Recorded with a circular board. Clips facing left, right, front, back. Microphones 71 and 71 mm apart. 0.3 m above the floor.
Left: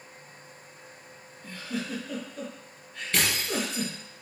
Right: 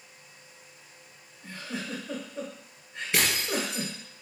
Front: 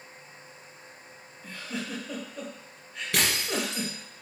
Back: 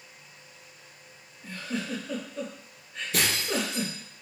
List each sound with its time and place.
1.4 s a giggle: 85° right, 1.5 m
3.1 s breaking glass: 15° right, 2.5 m